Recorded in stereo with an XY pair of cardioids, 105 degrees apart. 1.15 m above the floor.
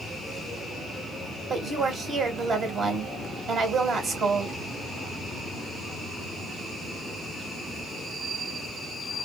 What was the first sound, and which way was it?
A woman speaking, 50° right.